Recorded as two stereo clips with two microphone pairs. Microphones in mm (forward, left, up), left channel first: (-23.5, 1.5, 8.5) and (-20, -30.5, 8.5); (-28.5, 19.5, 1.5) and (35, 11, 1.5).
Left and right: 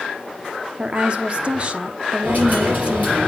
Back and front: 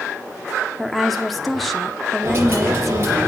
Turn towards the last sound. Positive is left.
turn(degrees=-55)